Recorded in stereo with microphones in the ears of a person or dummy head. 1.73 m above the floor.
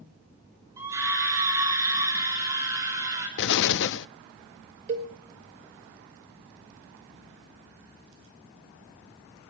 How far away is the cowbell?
About 1.0 m.